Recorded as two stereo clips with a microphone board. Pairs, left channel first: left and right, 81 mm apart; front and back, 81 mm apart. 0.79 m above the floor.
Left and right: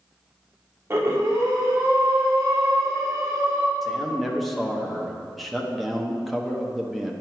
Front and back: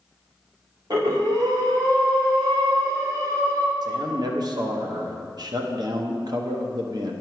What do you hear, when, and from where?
0.9 s breathing: 145° right, 1.6 m
3.8 s a man speaking: straight behind, 0.9 m